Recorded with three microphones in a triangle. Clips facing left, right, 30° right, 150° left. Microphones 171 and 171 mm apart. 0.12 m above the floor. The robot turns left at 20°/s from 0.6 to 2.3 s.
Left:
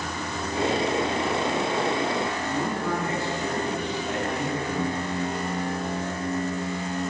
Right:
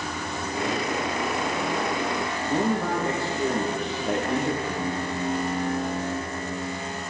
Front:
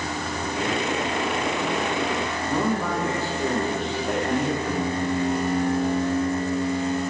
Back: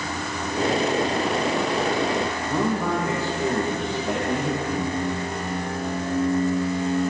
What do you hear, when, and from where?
2.5 s a man speaking: 125° right, 4.5 m
4.7 s singing: 5° right, 4 m